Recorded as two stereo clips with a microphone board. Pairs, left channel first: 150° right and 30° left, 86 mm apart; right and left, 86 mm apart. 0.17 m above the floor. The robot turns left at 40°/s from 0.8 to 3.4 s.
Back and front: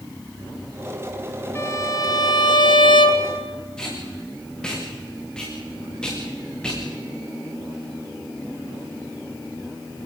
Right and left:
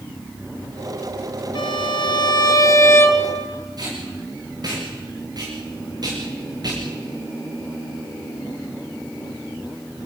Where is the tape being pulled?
130° left, 8 m.